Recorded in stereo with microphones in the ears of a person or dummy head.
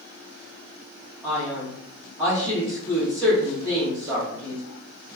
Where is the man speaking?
Centre (ahead or behind), 1.6 m.